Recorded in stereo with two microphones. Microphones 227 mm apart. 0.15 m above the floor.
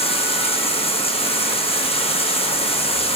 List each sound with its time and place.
0.0 s running water: 25° left (ahead or behind), 1.8 m